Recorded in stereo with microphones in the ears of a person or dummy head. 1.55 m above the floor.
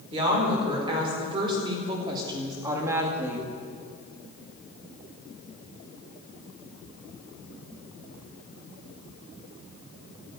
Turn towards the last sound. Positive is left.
turn(degrees=-10)  # may be behind; listen again after turning